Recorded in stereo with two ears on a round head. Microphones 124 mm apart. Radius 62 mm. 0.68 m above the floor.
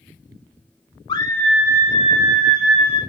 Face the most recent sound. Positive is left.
turn(degrees=-65)  # may be behind; listen again after turning